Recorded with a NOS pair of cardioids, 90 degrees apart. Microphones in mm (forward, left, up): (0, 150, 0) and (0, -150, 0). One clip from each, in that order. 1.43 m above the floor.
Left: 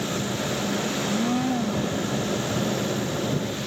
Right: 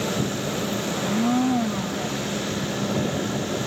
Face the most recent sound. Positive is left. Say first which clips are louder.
# right 2 dB
turn(degrees=-20)